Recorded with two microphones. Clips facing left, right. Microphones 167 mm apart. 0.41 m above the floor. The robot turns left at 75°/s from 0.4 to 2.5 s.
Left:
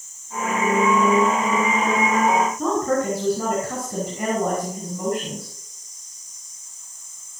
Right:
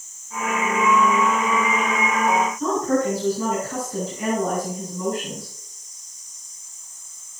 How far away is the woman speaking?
About 6 m.